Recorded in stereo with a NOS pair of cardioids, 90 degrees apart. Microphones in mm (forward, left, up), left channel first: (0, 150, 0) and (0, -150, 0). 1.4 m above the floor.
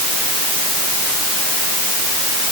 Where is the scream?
No scream in this recording.